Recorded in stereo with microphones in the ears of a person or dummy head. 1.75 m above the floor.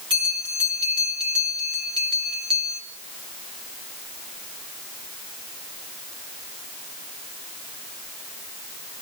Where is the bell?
25° right (ahead or behind), 1.8 m.